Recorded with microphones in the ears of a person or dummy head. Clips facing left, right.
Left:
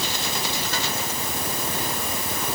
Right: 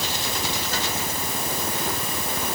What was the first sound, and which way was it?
Only background noise.